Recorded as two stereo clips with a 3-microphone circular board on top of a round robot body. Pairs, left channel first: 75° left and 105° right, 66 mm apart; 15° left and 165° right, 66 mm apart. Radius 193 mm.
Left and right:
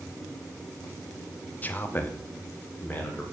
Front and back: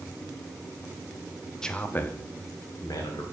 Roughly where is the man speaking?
Left.